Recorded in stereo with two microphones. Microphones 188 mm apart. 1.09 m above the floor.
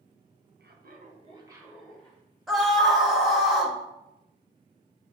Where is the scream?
Centre (ahead or behind), 1.2 m.